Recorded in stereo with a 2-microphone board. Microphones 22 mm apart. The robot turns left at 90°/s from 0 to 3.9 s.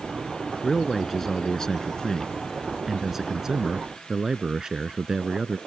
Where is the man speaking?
5° right (ahead or behind); by 5.6 s 30° right (ahead or behind).